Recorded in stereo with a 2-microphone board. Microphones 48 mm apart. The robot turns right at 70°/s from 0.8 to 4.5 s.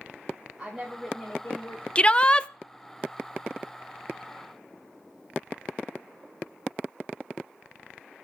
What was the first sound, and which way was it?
A woman speaking, 5° right.